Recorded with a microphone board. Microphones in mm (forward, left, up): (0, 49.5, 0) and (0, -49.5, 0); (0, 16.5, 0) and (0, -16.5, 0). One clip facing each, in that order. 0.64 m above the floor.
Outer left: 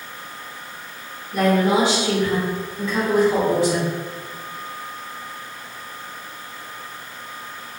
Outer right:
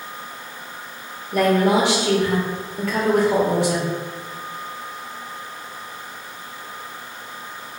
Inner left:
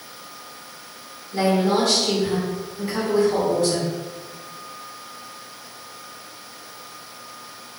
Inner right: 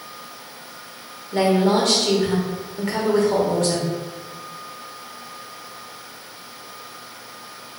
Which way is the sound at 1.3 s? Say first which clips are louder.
Outer right 1 dB, inner right 2 dB; 70° right (ahead or behind).